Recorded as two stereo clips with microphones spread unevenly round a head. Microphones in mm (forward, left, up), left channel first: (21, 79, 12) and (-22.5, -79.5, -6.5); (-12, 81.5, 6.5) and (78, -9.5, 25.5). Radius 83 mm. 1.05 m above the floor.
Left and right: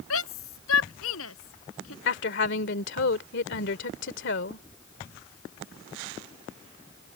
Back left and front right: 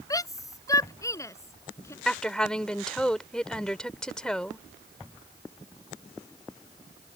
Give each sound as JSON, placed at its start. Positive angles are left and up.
{"t": 0.1, "sound": "a shout", "azimuth_deg": 70}
{"t": 2.0, "sound": "a woman speaking", "azimuth_deg": 50}